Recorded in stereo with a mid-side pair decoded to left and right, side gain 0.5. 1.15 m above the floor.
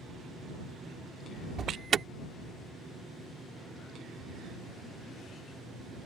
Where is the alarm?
40° right.